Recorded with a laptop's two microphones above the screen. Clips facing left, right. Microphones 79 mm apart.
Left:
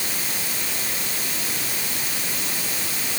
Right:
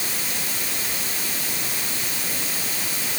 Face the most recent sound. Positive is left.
No sound to turn to.